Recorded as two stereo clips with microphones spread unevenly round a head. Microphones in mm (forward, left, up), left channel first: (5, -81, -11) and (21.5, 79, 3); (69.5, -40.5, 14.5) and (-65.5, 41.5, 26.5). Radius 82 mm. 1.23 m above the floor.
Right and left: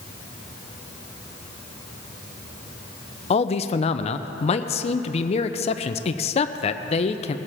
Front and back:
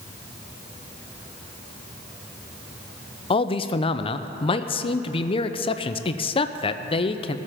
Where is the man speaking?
70° right, 0.5 m.